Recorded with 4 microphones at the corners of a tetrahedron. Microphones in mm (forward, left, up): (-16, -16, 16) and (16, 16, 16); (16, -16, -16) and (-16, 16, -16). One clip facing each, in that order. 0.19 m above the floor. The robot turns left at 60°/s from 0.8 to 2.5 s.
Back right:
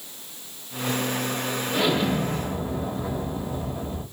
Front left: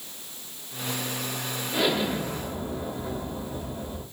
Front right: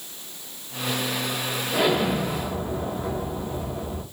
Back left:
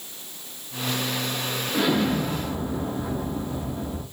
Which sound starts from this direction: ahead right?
An explosion, at 1.7 s.